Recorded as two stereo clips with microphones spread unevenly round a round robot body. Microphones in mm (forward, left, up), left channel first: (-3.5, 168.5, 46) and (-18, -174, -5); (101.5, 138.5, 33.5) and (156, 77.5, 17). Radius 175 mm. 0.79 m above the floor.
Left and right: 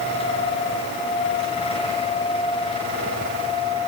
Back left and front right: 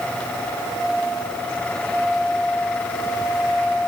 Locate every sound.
Only background noise.